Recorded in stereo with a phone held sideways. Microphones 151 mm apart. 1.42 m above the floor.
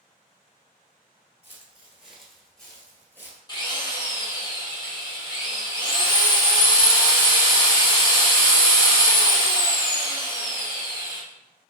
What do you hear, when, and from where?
1.4 s footsteps: 15° right (ahead or behind), 1.5 m; by 3.4 s 15° left (ahead or behind), 1.4 m
3.5 s a drill: 30° left (ahead or behind), 1.2 m